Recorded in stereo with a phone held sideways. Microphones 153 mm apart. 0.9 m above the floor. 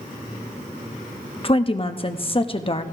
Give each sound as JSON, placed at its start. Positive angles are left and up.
{"t": 1.4, "sound": "a woman speaking", "side_deg": 35, "distance_m": 0.9}